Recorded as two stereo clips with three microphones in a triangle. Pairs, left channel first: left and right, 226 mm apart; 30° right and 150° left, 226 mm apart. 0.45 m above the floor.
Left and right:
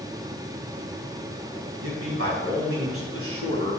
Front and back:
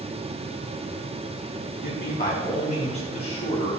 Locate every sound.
1.8 s a man speaking: 80° right, 3.5 m; by 3.8 s 100° right, 3.5 m